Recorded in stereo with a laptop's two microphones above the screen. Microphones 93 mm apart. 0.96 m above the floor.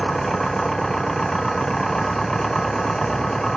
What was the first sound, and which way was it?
An engine running, 5° left (ahead or behind).